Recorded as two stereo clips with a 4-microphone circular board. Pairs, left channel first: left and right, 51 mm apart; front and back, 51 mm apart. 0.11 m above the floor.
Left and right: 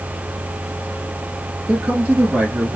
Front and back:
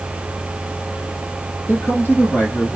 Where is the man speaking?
30° right, 1.8 m; by 2.8 s 40° right, 2 m.